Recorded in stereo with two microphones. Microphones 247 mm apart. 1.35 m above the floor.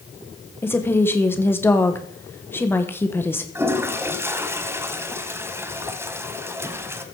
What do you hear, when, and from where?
0.6 s a woman speaking: 10° left (ahead or behind), 1.1 m
3.5 s a toilet flushing: 10° right (ahead or behind), 1.2 m